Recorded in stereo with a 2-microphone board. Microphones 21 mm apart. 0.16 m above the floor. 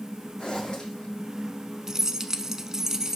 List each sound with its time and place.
0.4 s a zipper: 55° left (ahead or behind), 6 m
1.9 s keys jangling: 25° right (ahead or behind), 0.9 m